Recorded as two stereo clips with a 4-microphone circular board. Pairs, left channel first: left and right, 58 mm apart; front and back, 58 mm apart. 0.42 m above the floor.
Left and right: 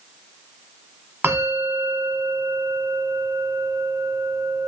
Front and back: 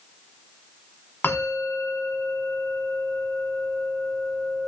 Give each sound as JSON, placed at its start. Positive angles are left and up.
{"t": 1.2, "sound": "a bell", "azimuth_deg": -45, "distance_m": 1.1}